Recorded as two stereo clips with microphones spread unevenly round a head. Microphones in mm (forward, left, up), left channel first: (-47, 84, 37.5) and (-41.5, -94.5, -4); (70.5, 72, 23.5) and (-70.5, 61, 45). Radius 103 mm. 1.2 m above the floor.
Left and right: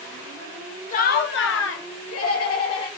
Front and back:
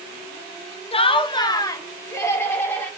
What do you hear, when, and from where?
0.9 s laughter: 35° left, 0.6 m; by 2.9 s 80° left, 1.7 m